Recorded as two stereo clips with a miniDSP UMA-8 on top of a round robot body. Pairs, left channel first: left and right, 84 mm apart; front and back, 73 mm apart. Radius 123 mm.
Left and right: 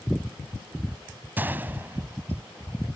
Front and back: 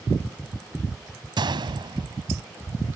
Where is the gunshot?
160° right.